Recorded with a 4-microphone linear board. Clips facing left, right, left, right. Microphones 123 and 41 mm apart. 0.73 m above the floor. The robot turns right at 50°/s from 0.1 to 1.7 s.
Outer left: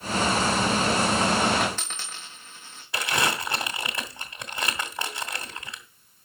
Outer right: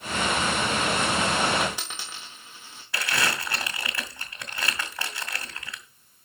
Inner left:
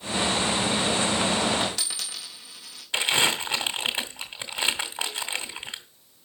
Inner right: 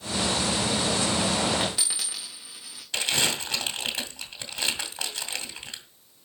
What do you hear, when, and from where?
1.6 s a dropped coin: 5° right (ahead or behind), 3.5 m; by 2.8 s 10° right (ahead or behind), 3.5 m
2.9 s crumpling: 20° left (ahead or behind), 2 m